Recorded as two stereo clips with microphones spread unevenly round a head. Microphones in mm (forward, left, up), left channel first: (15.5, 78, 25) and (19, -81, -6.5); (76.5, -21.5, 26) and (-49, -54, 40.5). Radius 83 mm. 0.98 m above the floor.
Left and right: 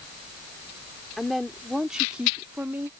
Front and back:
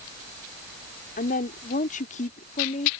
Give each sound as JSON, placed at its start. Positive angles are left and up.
{"t": 1.2, "sound": "a woman speaking", "azimuth_deg": 5}